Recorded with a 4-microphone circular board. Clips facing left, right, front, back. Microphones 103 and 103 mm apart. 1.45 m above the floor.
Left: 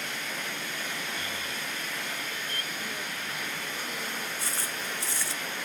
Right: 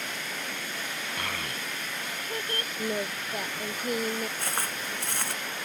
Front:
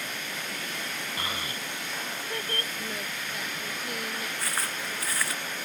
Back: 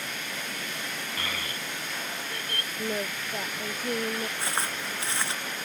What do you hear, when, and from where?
1.2 s a child speaking: 65° right; by 2.7 s 55° right
2.8 s singing: 125° right
4.4 s footsteps: 115° right